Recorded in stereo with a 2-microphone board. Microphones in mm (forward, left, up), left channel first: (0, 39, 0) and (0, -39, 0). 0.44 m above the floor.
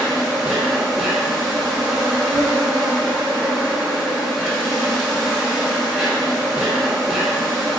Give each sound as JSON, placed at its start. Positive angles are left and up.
{"t": 0.0, "sound": "an insect", "side_deg": -5, "distance_m": 0.9}